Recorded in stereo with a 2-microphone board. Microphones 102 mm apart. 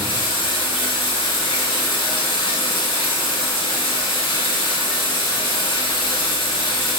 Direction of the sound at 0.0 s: 60° left (ahead or behind).